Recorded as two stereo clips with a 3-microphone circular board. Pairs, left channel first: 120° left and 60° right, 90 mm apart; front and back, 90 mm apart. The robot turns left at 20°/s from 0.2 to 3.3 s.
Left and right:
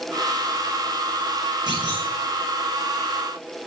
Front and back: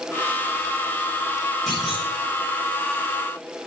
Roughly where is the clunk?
Right.